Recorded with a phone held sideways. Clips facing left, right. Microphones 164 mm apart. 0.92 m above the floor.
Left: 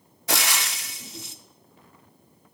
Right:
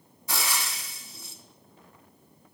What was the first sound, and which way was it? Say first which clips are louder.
Frying: left 4 dB; 70° left (ahead or behind).